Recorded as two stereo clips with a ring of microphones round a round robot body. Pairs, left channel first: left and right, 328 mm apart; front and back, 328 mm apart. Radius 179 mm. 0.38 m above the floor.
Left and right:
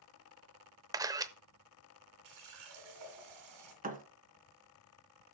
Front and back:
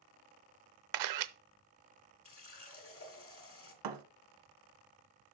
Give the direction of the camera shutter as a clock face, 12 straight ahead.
6 o'clock.